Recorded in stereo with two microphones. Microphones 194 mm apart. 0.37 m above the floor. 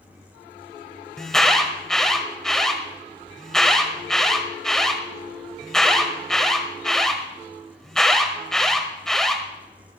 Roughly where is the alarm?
Centre.